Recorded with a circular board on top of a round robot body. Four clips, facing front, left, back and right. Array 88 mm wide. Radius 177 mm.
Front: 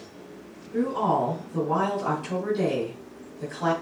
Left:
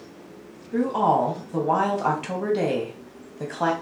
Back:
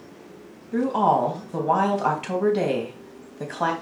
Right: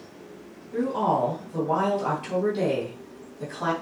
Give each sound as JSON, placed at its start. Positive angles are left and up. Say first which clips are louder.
{"t": 0.7, "sound": "a woman speaking", "louder": "left 3 dB, back 4 dB", "azimuth_deg": 150, "distance_m": 3.0}